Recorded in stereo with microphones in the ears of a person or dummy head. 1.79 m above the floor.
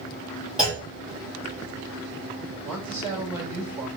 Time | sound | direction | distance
0.6 | a clunk | 5° right (ahead or behind) | 1.9 m
2.6 | a man speaking | 5° right (ahead or behind) | 3 m